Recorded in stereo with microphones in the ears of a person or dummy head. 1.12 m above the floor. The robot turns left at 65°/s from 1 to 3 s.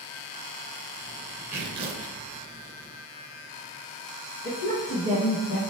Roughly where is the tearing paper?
Ahead.